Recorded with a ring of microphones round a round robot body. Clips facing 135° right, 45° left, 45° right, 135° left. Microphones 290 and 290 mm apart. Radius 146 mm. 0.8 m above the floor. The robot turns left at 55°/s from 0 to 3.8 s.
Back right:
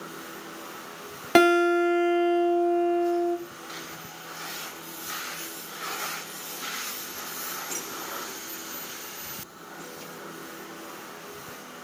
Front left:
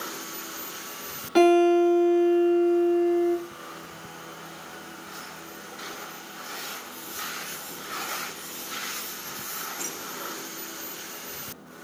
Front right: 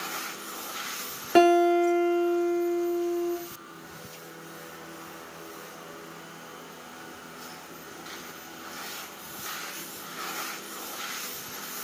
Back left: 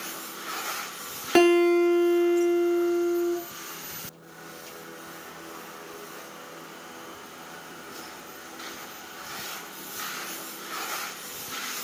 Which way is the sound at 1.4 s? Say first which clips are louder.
Front left 2 dB, back left 1 dB; 150° right.